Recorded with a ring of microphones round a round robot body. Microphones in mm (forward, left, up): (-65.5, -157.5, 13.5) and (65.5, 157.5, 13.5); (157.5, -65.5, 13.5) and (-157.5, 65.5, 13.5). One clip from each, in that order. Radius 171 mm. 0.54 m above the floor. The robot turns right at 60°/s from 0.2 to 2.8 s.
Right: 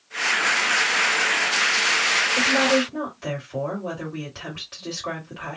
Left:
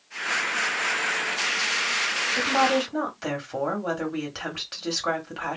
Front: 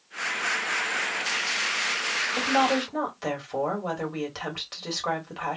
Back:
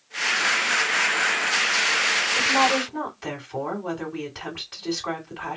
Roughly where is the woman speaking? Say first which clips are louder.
Right 3 dB, back 1 dB; ahead.